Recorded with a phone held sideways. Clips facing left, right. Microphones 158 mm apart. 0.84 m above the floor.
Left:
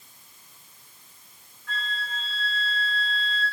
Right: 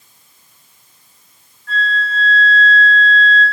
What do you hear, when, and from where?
1.7 s a flute: 50° right (ahead or behind), 1.8 m